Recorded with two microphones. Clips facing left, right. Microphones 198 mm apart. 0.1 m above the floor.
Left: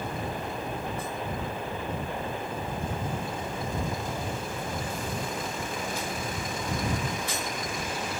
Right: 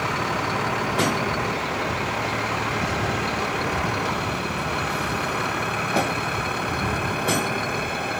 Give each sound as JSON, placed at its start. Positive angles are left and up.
{"t": 0.0, "sound": "a vehicle", "side_deg": -85}